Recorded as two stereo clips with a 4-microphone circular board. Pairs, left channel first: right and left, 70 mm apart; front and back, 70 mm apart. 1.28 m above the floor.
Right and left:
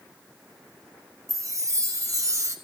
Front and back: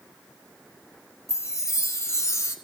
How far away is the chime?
About 2.5 m.